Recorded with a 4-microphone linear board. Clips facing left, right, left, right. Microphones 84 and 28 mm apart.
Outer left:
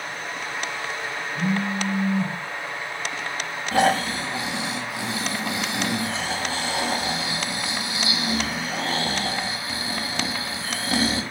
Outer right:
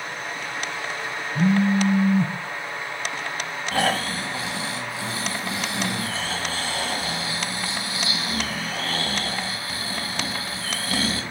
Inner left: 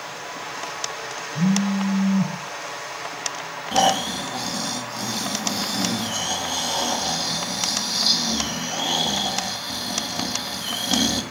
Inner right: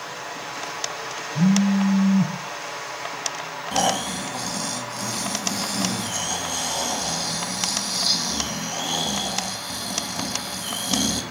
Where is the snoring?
20° left (ahead or behind), 0.7 m.